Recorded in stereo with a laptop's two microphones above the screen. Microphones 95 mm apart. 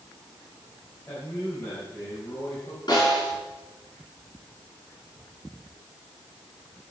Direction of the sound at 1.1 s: 25° left (ahead or behind).